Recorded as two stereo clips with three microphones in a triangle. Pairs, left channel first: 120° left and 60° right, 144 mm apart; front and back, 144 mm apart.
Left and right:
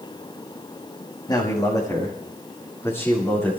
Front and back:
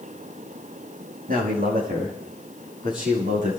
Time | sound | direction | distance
1.3 | a man speaking | straight behind | 5.5 m